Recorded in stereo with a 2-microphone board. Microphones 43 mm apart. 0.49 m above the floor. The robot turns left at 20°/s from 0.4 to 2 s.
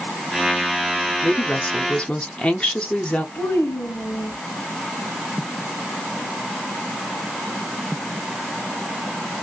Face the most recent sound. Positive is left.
turn(degrees=70)  # may be behind; listen again after turning